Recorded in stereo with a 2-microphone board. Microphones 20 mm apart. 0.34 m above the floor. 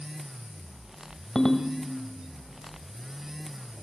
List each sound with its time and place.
1.4 s a ringtone: 30° left (ahead or behind), 1.1 m